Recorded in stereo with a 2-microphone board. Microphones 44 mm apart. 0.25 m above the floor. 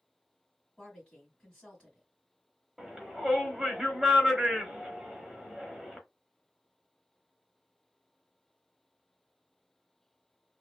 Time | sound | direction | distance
0.8 | a woman speaking | 25° left (ahead or behind) | 2.0 m
2.8 | a shout | 15° right (ahead or behind) | 1.0 m